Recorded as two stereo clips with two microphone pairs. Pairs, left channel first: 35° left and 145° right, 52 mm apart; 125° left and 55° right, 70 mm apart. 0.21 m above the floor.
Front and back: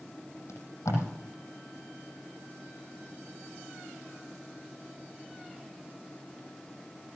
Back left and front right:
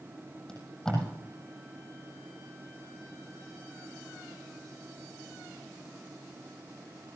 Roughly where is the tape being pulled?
Ahead left.